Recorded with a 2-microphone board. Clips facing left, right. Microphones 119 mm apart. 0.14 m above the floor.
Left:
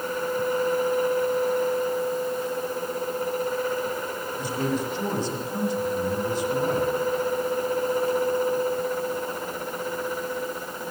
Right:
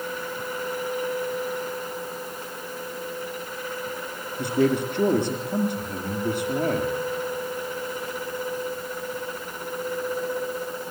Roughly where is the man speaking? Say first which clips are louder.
Right 6 dB; right.